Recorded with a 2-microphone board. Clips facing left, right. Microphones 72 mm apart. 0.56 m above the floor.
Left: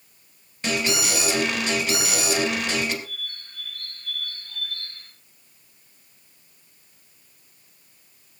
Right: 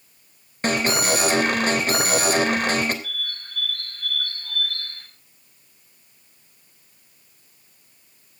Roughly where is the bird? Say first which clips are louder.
Right 5 dB; right.